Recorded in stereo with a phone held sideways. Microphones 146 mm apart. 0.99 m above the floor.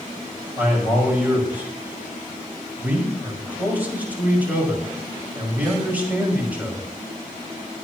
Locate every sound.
0.6 s a man speaking: 10° right (ahead or behind), 5.5 m